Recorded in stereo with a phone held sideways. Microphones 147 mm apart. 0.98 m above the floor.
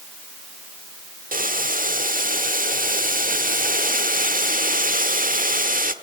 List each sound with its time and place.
1.3 s boiling: 70° right (ahead or behind), 1.3 m